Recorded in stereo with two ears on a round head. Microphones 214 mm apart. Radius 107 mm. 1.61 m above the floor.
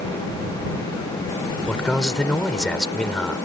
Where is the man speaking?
5° left (ahead or behind).